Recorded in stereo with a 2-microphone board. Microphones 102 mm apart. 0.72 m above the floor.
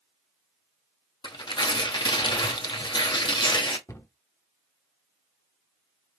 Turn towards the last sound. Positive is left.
turn(degrees=30)  # may be behind; listen again after turning